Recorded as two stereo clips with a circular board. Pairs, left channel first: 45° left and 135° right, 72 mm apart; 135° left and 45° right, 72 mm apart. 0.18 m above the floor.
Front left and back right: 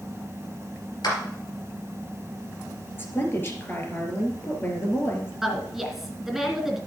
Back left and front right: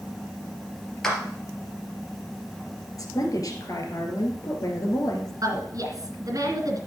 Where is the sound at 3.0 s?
100° left, 3 m.